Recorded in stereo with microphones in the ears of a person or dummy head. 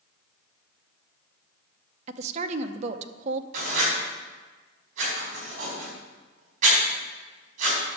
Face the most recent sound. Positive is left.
turn(degrees=-45)  # may be behind; listen again after turning